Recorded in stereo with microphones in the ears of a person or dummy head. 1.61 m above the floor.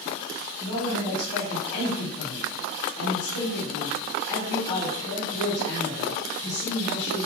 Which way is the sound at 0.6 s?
15° left (ahead or behind).